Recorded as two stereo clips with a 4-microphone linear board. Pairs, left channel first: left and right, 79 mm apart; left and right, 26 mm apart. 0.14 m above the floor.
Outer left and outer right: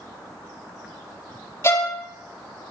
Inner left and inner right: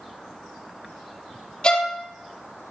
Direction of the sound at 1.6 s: 35° left (ahead or behind).